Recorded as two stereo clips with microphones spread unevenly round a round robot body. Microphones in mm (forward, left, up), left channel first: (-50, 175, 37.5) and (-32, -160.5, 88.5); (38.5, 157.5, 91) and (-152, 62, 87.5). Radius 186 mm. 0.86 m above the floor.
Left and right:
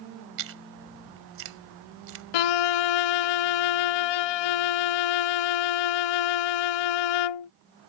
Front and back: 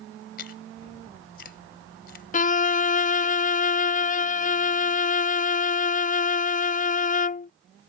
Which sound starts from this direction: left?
A violin, at 2.3 s.